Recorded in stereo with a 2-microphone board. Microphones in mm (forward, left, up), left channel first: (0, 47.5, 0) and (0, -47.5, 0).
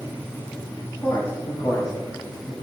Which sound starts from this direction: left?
A man speaking, at 1.0 s.